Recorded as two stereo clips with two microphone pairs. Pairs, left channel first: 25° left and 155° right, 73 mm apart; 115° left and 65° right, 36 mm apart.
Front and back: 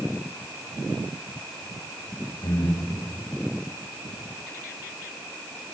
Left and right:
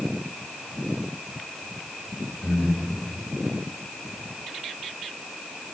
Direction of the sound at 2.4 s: 20° left.